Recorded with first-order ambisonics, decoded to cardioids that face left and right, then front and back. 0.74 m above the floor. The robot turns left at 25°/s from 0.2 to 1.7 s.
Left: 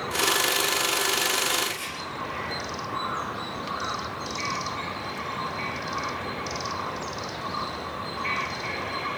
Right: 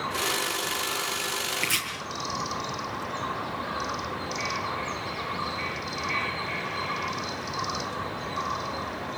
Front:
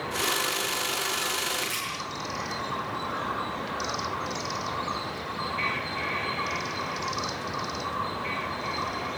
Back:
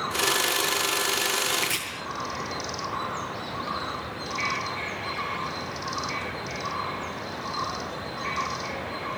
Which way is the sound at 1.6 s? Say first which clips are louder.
Right 2 dB, back 3 dB; 110° right.